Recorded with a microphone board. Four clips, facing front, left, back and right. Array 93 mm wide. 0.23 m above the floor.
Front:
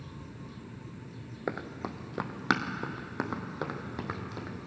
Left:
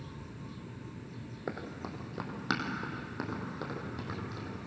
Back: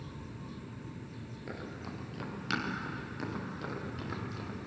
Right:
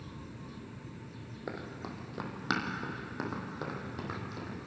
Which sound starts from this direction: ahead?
Running footsteps, at 1.5 s.